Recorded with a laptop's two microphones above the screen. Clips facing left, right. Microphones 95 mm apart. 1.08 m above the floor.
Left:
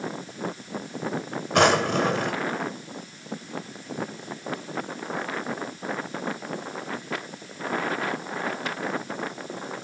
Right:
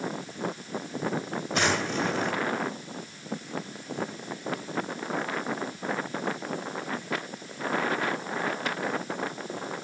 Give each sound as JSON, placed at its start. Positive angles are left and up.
{"t": 1.5, "sound": "a drawer", "side_deg": 65, "distance_m": 1.7}